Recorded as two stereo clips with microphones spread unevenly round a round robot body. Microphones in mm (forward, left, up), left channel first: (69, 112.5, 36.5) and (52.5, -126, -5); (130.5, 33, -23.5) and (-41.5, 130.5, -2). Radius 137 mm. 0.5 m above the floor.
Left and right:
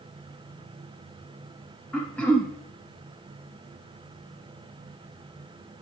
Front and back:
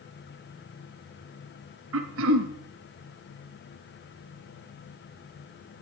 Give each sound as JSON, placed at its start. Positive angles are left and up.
{"t": 1.9, "sound": "throat clearing", "azimuth_deg": 170, "distance_m": 0.8}